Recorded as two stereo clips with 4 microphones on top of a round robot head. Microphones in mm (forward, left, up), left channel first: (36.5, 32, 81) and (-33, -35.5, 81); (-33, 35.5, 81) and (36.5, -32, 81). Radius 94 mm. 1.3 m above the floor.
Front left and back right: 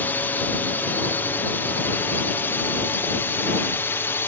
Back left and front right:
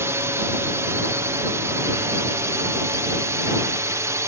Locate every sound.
0.0 s a drone: 10° right